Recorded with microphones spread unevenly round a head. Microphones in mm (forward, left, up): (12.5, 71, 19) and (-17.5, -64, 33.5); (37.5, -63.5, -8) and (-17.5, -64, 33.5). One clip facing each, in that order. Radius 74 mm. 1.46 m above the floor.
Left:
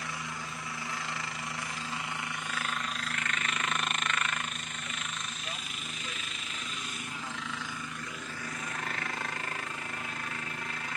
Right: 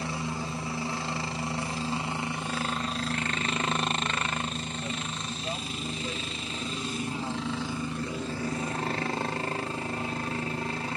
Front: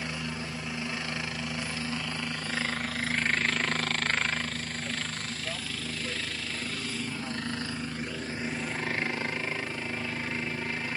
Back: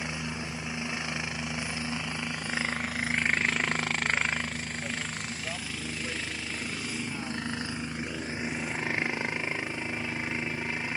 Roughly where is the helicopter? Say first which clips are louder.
Right 7 dB, even; ahead right.